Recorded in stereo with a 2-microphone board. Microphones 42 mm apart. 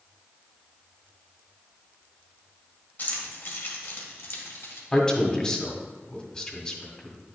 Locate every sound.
3.0 s keys jangling: 40° left (ahead or behind), 1.7 m; by 4.8 s 75° left (ahead or behind), 2.5 m
4.9 s a man speaking: 20° left (ahead or behind), 1.5 m